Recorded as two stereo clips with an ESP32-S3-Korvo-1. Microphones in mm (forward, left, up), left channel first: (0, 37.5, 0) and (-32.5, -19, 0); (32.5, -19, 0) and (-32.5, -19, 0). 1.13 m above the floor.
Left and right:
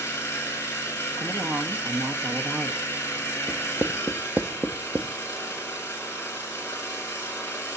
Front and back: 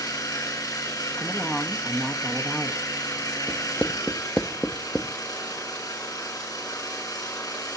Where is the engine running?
5° left, 7 m.